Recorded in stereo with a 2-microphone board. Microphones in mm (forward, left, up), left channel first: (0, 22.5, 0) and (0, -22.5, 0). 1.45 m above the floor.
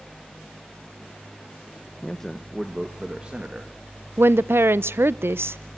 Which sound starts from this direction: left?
A man speaking, at 2.0 s.